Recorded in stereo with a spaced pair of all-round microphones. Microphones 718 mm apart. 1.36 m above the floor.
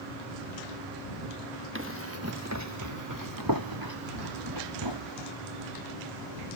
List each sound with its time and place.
1.8 s running footsteps: 15° right (ahead or behind); by 5.3 s 35° right (ahead or behind)